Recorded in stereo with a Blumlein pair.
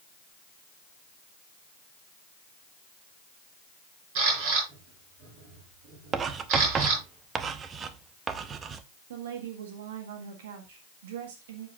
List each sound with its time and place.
4.2 s a camera shutter: 45° right, 6 m
6.1 s writing: 25° right, 0.7 m
9.1 s a woman speaking: 55° right, 1.7 m